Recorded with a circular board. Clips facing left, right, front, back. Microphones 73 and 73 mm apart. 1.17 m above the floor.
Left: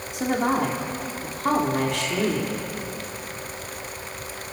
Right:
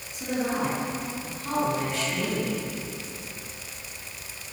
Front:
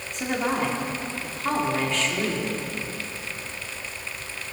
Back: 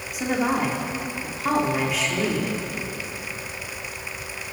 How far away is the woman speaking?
About 3.5 m.